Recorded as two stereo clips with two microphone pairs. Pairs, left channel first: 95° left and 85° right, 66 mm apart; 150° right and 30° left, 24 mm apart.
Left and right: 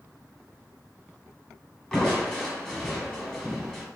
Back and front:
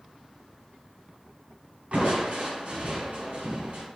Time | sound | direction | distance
1.9 | crushing | 20° left | 1.9 m